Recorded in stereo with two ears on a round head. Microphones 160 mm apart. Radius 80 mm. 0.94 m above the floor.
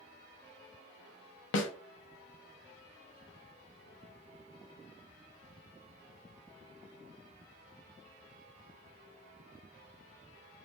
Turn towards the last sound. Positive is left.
turn(degrees=75)  # may be behind; listen again after turning